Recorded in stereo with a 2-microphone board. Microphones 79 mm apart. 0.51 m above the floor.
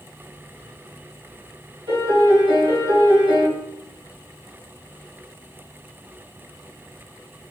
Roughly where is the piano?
Right.